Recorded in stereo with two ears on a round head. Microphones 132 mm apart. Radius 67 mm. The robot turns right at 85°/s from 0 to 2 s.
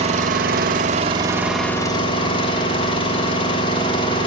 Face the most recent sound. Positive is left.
turn(degrees=35)